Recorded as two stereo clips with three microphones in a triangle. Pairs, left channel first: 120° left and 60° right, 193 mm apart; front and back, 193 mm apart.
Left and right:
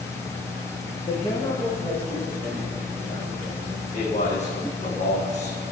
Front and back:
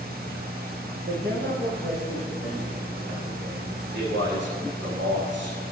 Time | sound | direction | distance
1.1 | a man speaking | straight behind | 5 m
3.9 | a man speaking | 170° left | 5 m